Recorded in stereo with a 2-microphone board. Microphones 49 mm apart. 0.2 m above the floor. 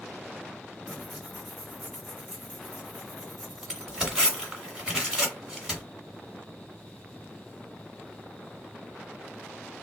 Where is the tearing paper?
15° right (ahead or behind), 1.7 m.